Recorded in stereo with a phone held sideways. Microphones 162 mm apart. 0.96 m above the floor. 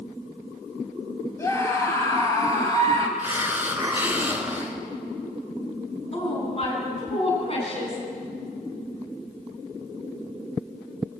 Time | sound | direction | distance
1.4 | a scream | 20° left (ahead or behind) | 6.5 m
3.2 | a hiss | 15° right (ahead or behind) | 3 m
6.1 | a woman speaking | 35° left (ahead or behind) | 8 m